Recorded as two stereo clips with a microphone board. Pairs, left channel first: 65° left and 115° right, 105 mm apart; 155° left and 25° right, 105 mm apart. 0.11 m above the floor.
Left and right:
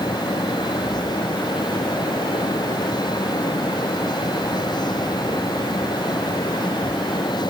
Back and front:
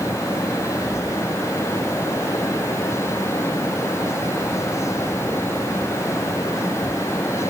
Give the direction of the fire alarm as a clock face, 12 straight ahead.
No fire alarm in this recording.